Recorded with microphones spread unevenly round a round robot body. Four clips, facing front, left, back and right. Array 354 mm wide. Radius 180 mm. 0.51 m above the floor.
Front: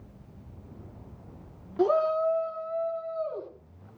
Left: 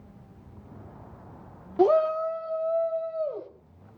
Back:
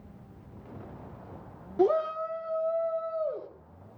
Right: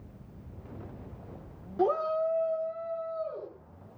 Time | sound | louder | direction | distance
1.8 | a shout | left 6 dB, front 2 dB | 105° left | 1.2 m